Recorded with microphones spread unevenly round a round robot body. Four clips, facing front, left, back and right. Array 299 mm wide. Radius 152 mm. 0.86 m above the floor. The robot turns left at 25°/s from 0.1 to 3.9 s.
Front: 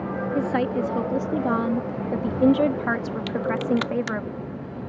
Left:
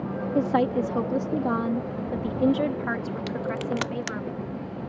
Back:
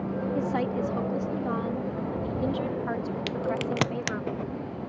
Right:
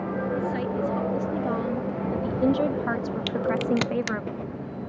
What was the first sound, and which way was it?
A woman speaking, 65° left.